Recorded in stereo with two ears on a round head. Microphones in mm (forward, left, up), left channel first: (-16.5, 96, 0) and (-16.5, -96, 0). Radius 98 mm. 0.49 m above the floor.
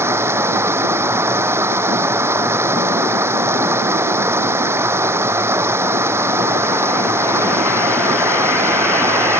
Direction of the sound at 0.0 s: 10° right (ahead or behind).